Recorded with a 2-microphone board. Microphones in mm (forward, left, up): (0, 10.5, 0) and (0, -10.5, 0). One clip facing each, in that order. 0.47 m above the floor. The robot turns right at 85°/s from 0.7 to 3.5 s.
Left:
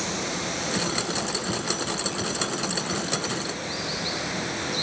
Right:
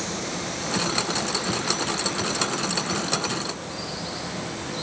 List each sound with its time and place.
0.0 s running water: 170° left, 2.5 m; by 4.8 s 45° left, 2.5 m